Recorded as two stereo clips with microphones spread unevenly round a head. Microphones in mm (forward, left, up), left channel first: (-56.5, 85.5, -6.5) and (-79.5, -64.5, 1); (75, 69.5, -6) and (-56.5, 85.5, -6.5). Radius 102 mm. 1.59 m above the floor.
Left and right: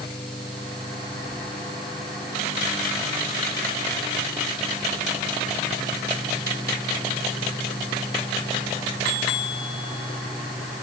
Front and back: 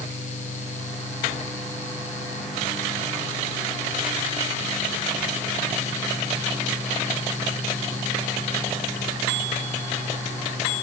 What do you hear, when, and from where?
Only background noise.